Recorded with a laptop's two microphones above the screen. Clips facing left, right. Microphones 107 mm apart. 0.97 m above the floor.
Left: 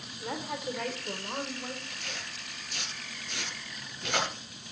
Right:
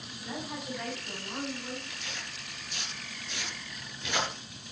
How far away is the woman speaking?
About 3 m.